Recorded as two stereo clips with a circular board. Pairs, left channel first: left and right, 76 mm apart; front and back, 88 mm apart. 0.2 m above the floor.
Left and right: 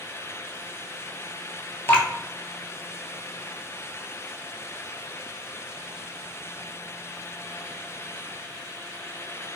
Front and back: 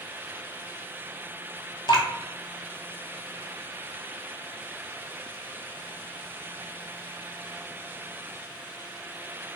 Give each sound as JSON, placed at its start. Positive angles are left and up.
{"t": 1.9, "sound": "dripping", "azimuth_deg": 30, "distance_m": 0.7}